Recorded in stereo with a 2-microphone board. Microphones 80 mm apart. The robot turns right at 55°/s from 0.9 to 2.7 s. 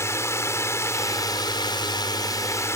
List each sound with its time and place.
0.0 s a drone: 40° left; by 2.8 s 140° left